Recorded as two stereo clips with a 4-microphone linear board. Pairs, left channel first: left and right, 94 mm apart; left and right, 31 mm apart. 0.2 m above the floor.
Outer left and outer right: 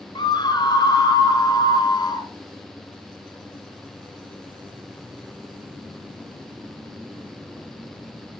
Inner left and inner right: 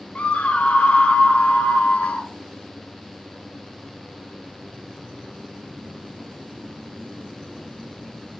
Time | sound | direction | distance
0.1 | a scream | 50° left (ahead or behind) | 2.5 m